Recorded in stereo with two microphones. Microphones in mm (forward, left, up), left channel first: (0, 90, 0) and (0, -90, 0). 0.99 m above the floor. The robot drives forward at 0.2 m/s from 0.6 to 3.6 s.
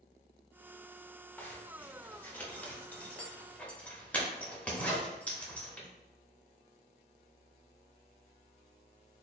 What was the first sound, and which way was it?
A zipper, 10° left (ahead or behind).